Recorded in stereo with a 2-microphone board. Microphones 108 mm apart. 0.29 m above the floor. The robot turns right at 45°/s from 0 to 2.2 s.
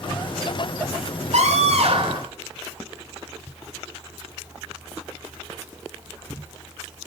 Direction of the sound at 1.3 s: 80° right.